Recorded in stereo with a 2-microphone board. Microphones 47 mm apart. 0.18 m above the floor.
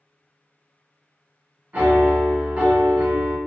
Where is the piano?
30° right (ahead or behind), 1.0 m.